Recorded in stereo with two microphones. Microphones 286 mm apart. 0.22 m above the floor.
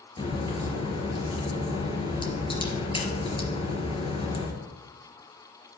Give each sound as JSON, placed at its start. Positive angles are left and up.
{"t": 0.2, "sound": "a crack", "side_deg": 20, "distance_m": 3.0}